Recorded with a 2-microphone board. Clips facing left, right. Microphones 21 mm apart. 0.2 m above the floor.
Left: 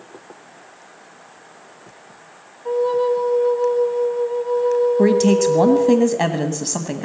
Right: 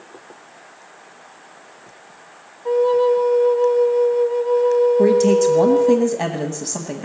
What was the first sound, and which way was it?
A flute, 10° right (ahead or behind).